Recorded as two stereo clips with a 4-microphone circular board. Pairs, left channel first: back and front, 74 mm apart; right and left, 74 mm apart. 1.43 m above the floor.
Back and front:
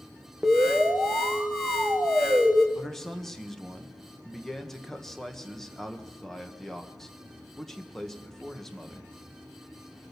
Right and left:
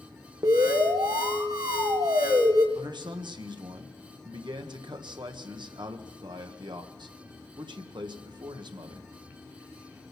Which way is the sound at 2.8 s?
95° left.